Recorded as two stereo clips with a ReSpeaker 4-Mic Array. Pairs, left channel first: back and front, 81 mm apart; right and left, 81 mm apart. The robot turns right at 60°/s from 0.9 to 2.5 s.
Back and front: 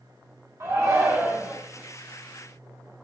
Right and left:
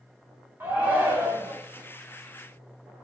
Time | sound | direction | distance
0.6 | a shout | 35° left | 1.4 m